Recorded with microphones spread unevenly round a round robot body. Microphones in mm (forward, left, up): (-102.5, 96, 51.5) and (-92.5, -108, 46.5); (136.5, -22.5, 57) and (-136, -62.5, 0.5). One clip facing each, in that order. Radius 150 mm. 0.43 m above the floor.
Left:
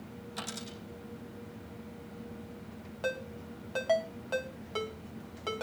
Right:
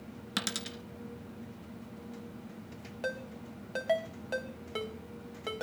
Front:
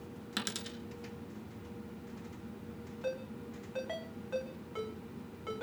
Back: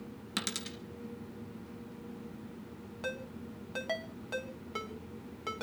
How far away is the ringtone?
About 3 m.